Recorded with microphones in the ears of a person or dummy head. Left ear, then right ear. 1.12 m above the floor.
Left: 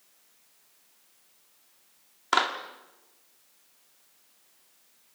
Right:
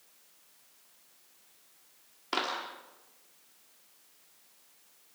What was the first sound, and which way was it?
A clap, 55° left (ahead or behind).